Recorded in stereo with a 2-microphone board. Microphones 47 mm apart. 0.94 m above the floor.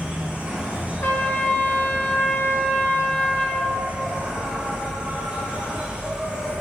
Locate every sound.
0.0 s an insect: 25° right (ahead or behind), 1.6 m
1.0 s a trumpet: 35° left (ahead or behind), 0.9 m